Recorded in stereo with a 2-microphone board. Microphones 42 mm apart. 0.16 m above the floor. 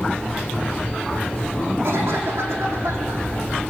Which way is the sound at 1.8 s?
80° right.